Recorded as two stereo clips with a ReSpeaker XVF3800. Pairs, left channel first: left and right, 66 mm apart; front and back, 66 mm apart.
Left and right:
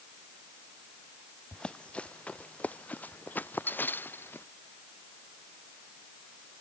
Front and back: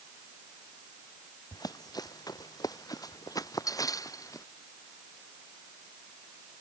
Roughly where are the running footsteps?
Ahead.